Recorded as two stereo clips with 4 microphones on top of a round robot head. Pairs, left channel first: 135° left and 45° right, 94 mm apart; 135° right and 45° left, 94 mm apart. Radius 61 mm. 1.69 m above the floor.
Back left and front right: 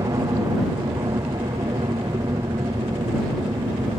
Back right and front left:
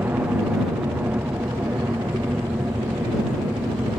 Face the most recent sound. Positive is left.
turn(degrees=-20)